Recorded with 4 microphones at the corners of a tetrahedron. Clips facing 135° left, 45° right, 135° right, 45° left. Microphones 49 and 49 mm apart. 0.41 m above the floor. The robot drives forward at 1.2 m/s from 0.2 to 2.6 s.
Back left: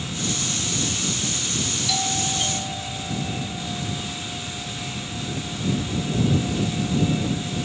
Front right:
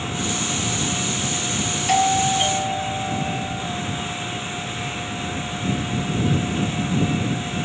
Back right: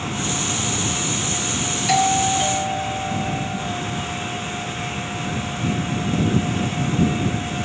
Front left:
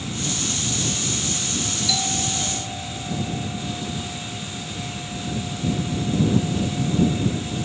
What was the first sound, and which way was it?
An aircraft, 100° right.